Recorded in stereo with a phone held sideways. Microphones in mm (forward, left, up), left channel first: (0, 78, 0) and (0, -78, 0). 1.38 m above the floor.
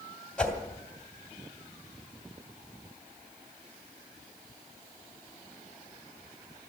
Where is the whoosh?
5° left (ahead or behind), 2.5 m.